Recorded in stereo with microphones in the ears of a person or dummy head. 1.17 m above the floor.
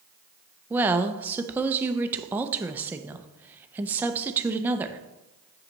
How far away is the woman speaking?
About 0.5 m.